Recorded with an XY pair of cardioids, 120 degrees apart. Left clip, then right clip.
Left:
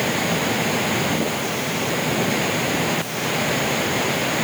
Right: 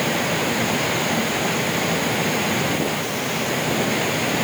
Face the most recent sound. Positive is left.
No sound to turn to.